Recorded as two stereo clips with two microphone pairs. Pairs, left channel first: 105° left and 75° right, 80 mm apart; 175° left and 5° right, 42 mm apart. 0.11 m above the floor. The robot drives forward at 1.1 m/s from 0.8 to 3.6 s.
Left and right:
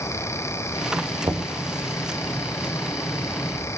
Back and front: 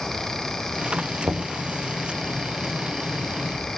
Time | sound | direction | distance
1.2 | knocking | 45° right | 4.5 m